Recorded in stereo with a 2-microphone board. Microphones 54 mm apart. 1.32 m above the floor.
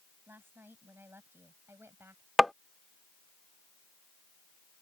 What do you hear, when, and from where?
0.3 s a woman speaking: 45° right (ahead or behind); by 2.3 s 50° right (ahead or behind)
2.4 s tapping: 5° right (ahead or behind)